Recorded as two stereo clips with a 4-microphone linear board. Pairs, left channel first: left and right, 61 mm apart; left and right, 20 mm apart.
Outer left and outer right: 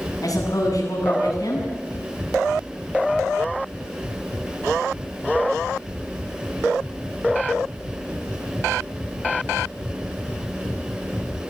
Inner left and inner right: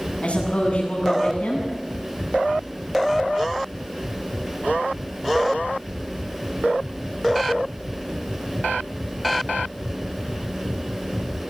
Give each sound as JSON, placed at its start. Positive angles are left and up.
{"t": 0.2, "sound": "a woman speaking", "side_deg": 85, "distance_m": 8.0}